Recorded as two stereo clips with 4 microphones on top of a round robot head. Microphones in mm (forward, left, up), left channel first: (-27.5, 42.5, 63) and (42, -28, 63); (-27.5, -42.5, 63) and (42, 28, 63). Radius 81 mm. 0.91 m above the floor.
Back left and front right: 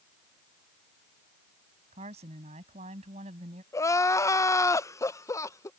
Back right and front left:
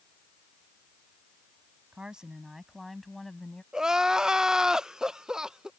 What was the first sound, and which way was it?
A woman speaking, 35° right.